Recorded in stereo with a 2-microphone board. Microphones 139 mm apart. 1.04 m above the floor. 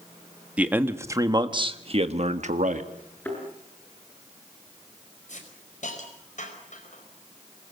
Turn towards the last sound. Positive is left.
turn(degrees=60)  # may be behind; listen again after turning